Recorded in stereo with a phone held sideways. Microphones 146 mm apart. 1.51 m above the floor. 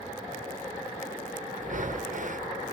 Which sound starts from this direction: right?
Breathing, at 1.6 s.